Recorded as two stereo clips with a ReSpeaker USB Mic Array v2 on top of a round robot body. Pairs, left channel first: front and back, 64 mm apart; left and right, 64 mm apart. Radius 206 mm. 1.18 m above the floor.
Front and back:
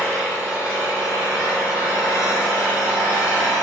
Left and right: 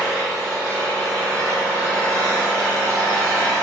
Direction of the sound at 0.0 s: 130° left.